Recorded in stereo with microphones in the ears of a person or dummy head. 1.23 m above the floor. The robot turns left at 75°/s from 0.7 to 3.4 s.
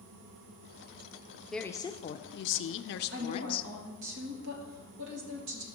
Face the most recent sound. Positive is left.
turn(degrees=-70)  # may be behind; listen again after turning